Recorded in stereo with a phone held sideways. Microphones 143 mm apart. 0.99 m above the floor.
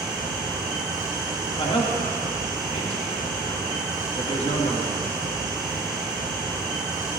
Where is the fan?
5° right (ahead or behind), 6 m.